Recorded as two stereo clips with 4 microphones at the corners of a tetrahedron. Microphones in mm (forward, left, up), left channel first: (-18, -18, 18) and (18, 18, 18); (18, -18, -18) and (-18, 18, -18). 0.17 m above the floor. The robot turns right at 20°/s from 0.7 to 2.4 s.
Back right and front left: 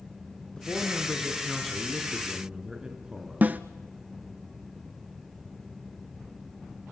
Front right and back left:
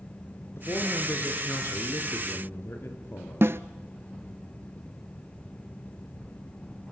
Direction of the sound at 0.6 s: 65° right.